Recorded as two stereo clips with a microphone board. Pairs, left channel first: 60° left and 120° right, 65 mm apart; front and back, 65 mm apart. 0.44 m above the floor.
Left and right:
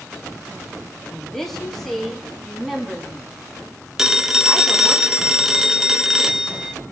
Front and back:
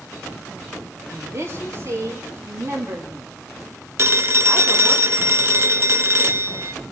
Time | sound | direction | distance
1.1 | a woman speaking | 140° left | 3 m
4.0 | a phone ringing | 160° left | 0.8 m